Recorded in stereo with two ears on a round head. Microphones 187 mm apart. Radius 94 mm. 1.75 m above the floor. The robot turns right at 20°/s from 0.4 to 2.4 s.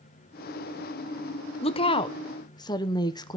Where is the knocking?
No knocking in this recording.